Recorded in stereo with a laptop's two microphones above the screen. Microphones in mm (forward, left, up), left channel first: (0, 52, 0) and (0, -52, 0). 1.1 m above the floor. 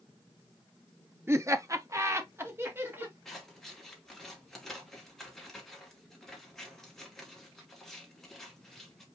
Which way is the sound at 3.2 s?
5° left (ahead or behind).